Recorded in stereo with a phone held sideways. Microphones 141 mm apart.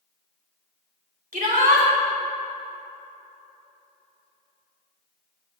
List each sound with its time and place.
1.3 s a shout: 70° right (ahead or behind), 2.5 m